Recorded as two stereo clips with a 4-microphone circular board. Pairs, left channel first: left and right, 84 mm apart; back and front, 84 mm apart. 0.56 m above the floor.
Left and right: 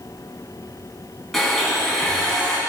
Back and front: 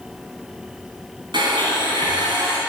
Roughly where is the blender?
Ahead.